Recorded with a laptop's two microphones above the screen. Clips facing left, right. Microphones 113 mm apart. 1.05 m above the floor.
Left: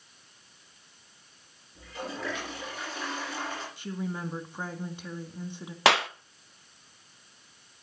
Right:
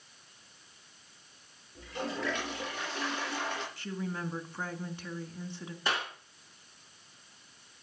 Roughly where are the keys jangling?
I don't hear keys jangling.